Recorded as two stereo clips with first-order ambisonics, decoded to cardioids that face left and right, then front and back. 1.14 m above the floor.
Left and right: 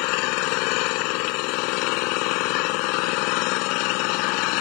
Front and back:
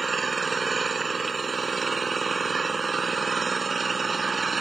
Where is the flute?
I don't hear a flute.